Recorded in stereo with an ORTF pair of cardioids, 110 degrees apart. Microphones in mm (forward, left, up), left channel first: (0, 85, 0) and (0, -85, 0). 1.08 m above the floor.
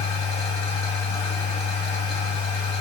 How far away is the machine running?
About 1.8 m.